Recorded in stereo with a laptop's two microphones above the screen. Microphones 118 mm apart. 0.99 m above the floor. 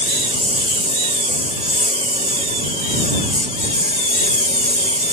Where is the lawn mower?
65° right (ahead or behind).